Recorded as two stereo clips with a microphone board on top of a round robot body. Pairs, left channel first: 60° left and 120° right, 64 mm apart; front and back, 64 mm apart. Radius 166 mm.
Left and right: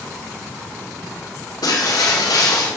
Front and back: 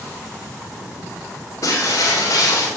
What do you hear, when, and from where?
1.6 s breaking glass: 40° left, 3 m